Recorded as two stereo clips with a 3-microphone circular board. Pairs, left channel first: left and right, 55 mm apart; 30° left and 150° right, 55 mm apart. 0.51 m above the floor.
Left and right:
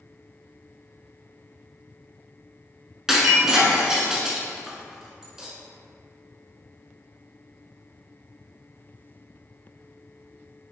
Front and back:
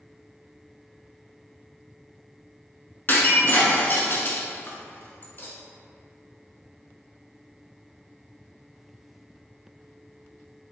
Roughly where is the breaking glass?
Ahead.